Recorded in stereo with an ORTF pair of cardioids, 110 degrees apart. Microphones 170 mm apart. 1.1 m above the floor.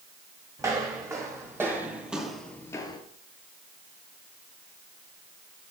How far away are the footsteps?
About 3.5 m.